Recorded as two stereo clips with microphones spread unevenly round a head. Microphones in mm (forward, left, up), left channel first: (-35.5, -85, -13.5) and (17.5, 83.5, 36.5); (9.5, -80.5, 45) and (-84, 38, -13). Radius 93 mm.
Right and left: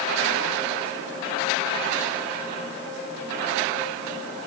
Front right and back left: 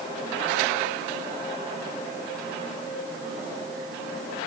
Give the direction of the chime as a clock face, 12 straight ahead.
No chime in this recording.